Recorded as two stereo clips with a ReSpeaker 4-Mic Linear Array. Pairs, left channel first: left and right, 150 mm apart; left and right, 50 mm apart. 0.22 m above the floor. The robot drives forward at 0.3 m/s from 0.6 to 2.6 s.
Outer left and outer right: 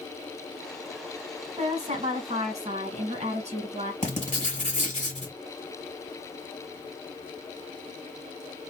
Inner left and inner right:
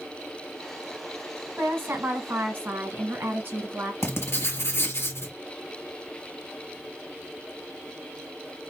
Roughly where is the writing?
Left.